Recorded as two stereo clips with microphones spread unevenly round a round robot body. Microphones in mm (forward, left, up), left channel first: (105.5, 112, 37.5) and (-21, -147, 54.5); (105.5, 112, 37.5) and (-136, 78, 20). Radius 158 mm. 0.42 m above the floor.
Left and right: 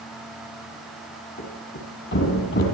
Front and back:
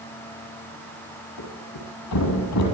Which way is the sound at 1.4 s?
15° left.